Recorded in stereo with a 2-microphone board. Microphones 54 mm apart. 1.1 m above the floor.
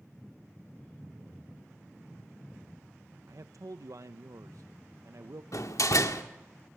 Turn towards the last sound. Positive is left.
turn(degrees=80)